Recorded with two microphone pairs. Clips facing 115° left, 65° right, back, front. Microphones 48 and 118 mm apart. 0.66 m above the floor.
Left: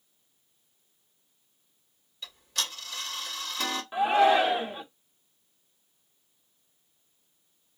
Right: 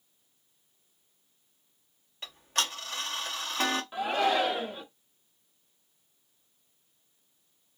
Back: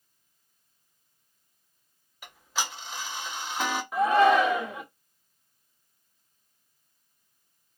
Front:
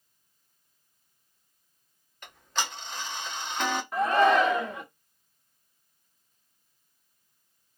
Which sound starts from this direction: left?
A shout, at 3.9 s.